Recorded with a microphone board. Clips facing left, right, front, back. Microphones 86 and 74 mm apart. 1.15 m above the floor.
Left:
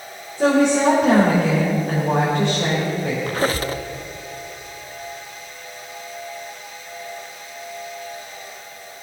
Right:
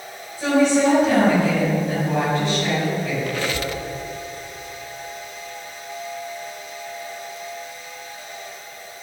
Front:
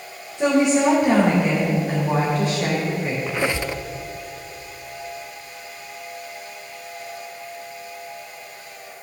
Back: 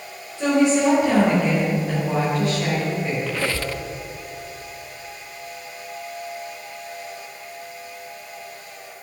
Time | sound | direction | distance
0.4 | a woman speaking | 65° left | 4 m
3.3 | a squeak | 60° left | 0.6 m